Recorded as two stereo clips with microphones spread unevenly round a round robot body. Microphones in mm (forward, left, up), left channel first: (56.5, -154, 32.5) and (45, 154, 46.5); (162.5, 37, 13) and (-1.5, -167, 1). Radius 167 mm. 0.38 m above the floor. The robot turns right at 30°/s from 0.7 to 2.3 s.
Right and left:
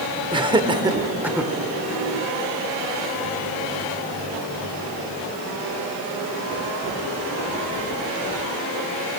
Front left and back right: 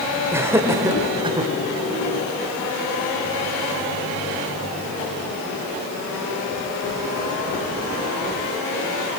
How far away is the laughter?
About 1.4 m.